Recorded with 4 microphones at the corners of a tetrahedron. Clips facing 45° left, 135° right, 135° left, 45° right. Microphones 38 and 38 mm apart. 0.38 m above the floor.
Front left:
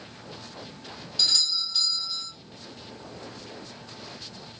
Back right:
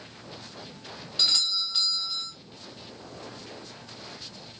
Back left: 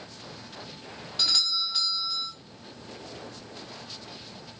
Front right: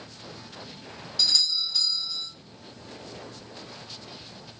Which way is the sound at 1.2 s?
175° left.